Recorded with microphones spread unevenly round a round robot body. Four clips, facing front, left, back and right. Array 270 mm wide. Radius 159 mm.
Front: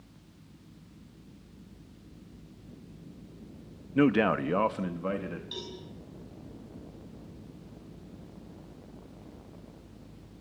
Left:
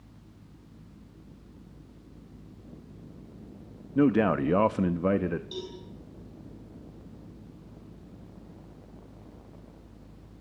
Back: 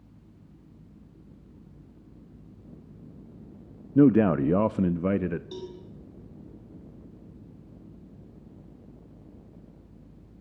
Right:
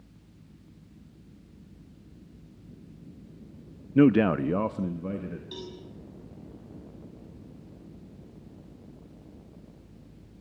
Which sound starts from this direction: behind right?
A man speaking, at 4.0 s.